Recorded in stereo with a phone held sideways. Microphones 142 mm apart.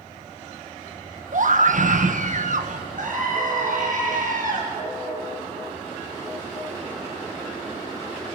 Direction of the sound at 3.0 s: 70° right (ahead or behind).